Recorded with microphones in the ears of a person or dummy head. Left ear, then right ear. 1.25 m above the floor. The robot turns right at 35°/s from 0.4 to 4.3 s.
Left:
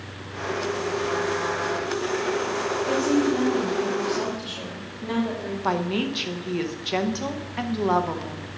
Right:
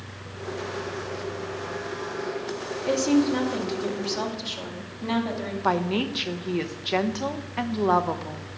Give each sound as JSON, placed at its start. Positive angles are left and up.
{"t": 2.9, "sound": "a woman speaking", "azimuth_deg": -80, "distance_m": 2.0}
{"t": 5.6, "sound": "a woman speaking", "side_deg": -10, "distance_m": 0.6}